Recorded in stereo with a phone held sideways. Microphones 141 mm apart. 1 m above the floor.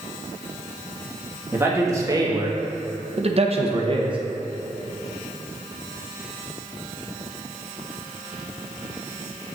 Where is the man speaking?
15° right (ahead or behind), 1.5 m; by 4.2 s 35° right (ahead or behind), 1.0 m.